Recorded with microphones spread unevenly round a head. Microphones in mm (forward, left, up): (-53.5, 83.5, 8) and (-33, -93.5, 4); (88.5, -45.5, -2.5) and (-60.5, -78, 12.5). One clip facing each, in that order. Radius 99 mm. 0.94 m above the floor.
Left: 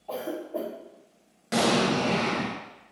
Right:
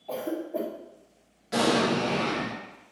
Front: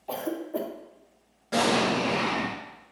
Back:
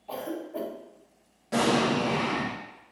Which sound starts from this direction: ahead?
A cough, at 0.1 s.